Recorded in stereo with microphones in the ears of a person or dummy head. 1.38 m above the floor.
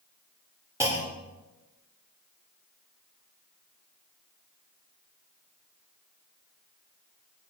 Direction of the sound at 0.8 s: 20° right (ahead or behind).